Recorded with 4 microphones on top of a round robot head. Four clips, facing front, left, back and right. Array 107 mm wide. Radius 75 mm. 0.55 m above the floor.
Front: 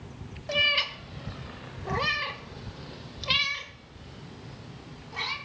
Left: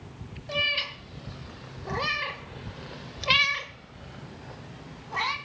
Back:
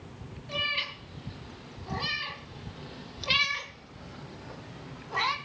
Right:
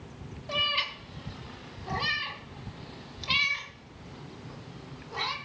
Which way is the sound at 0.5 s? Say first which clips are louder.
Left 1 dB, front 6 dB; 5° left.